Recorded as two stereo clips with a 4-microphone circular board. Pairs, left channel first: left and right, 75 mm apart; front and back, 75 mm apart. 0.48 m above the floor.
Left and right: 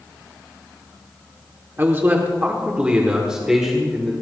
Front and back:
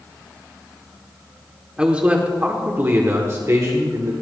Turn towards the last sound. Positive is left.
turn(degrees=180)